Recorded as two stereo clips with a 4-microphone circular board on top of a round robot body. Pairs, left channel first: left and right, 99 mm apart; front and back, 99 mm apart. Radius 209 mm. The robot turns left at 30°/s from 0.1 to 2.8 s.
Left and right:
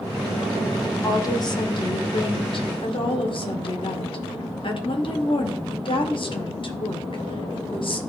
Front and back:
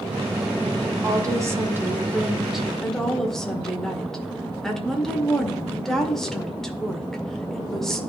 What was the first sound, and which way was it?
A woman speaking, 140° left.